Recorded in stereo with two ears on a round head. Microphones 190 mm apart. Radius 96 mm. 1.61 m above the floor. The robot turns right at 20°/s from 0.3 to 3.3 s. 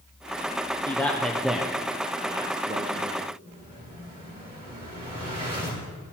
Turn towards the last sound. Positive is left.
turn(degrees=-25)  # may be behind; listen again after turning